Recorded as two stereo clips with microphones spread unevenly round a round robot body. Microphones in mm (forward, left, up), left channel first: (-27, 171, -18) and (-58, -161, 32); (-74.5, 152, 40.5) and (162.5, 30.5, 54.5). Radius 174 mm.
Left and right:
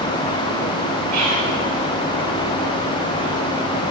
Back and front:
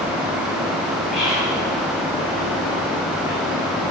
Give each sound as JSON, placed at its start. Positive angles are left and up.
{"t": 1.1, "sound": "whispering", "azimuth_deg": -140, "distance_m": 2.0}